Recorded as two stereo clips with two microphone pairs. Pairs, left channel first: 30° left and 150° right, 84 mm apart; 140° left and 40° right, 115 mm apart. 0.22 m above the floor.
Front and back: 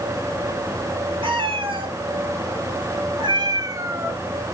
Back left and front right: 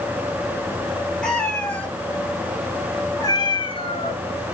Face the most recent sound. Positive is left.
turn(degrees=115)